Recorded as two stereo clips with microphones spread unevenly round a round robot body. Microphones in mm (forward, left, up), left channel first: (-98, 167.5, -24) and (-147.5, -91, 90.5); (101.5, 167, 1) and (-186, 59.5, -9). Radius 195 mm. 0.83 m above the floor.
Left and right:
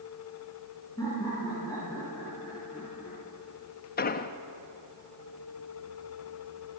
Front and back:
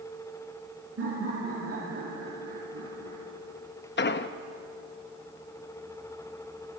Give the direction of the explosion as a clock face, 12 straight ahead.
10 o'clock.